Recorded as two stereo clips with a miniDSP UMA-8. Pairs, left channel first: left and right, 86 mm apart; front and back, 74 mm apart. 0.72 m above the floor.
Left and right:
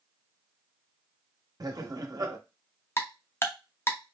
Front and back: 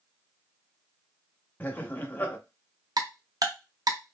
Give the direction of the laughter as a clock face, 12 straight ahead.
2 o'clock.